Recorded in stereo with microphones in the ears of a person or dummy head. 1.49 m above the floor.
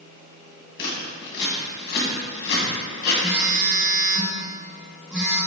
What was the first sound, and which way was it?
Scissors, 50° left (ahead or behind).